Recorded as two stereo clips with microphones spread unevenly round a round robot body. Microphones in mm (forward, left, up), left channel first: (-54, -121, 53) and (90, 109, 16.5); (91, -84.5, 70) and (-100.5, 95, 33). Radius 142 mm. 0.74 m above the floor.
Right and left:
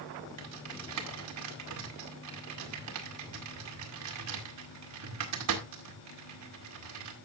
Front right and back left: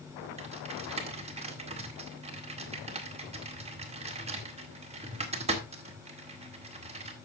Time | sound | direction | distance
0.4 | typing on a keyboard | 75° left | 1.9 m